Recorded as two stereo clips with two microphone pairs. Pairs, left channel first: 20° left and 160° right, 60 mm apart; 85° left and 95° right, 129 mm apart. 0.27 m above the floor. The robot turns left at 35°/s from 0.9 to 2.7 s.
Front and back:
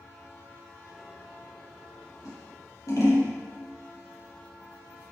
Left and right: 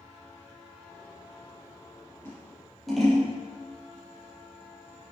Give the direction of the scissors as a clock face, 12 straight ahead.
12 o'clock.